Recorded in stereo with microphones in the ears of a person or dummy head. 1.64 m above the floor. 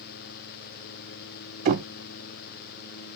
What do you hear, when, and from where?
1.6 s knocking: 45° right (ahead or behind), 0.9 m